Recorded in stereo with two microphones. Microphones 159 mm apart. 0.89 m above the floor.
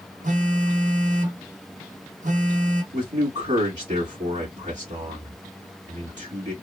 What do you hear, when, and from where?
0.2 s a phone buzzing: 55° right (ahead or behind), 1.1 m
2.9 s a man speaking: 50° right (ahead or behind), 2 m